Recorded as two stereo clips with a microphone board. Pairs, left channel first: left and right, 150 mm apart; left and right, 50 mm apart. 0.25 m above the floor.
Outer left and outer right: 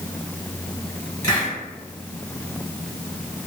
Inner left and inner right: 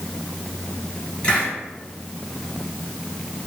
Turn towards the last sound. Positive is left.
turn(degrees=20)  # may be behind; listen again after turning